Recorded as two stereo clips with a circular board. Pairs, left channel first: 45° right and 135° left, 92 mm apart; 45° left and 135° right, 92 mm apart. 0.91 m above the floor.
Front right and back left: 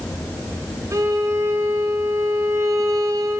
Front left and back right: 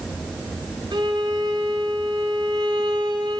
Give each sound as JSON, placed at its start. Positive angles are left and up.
{"t": 0.9, "sound": "a violin", "azimuth_deg": -170, "distance_m": 9.0}